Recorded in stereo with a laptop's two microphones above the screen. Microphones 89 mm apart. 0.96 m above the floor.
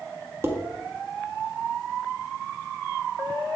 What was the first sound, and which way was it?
Dishes clattering, 25° right (ahead or behind).